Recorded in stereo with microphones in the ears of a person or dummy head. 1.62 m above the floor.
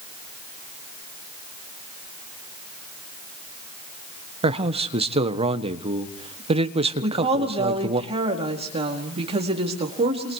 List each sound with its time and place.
4.4 s a man speaking: 35° right (ahead or behind), 1.2 m
7.0 s a woman speaking: 35° right (ahead or behind), 4 m